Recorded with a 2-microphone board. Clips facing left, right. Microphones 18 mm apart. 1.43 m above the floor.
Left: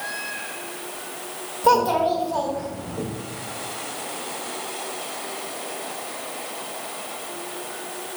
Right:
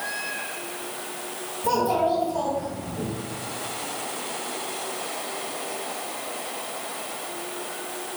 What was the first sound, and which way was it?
A child speaking, 55° left (ahead or behind).